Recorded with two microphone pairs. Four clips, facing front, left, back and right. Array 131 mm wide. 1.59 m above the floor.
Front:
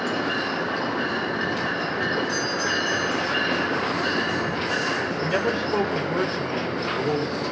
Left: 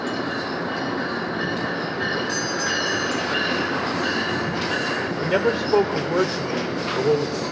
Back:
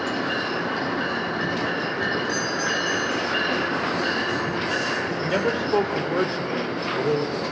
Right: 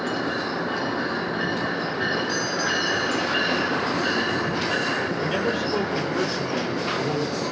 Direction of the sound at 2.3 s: 90° left.